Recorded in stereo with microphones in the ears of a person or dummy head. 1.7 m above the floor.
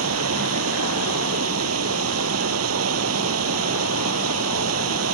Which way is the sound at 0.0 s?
90° right.